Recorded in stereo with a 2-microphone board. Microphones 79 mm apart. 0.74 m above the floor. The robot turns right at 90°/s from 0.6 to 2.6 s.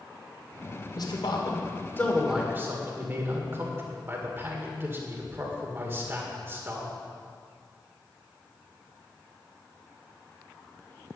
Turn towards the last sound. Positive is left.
turn(degrees=-30)  # may be behind; listen again after turning